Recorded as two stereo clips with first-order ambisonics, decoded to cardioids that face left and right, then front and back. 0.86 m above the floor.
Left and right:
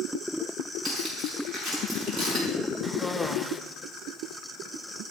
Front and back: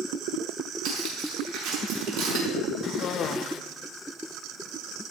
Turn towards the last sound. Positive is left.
turn(degrees=5)